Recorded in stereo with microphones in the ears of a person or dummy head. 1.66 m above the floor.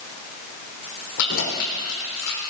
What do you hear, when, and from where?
1.2 s keys jangling: 75° left (ahead or behind), 3.5 m; by 2.4 s 65° left (ahead or behind), 3 m